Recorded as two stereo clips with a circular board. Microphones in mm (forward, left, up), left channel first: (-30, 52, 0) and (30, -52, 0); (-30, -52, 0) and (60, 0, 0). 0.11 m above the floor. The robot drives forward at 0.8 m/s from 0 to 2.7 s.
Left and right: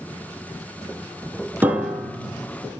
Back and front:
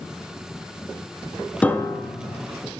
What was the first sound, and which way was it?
A piano, 100° right.